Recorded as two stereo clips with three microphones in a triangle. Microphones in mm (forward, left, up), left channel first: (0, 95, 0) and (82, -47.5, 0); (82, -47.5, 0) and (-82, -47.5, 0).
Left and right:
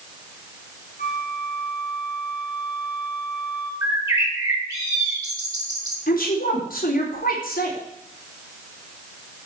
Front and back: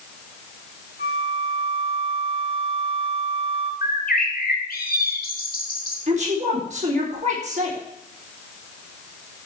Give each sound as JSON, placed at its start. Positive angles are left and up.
{"t": 1.0, "sound": "a flute", "azimuth_deg": 145, "distance_m": 3.5}
{"t": 3.8, "sound": "a bird", "azimuth_deg": 10, "distance_m": 3.0}
{"t": 6.1, "sound": "a woman speaking", "azimuth_deg": 140, "distance_m": 4.0}